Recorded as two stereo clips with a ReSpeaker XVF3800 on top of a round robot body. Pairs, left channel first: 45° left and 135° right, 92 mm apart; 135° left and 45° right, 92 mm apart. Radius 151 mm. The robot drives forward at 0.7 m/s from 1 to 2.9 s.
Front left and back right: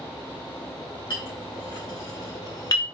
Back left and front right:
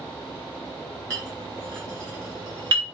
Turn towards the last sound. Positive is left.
turn(degrees=0)